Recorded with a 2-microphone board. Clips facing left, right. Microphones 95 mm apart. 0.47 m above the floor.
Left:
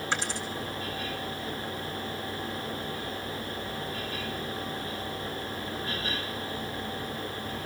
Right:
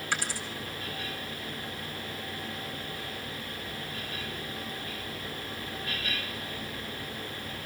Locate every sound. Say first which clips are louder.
0.1 s a dropped coin: left 1 dB; 20° left (ahead or behind), 3.5 m